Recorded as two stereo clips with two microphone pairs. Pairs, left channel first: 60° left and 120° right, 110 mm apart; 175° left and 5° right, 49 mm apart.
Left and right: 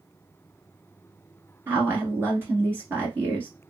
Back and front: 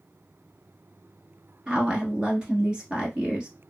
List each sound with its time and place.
1.7 s a woman speaking: 60° right, 1.3 m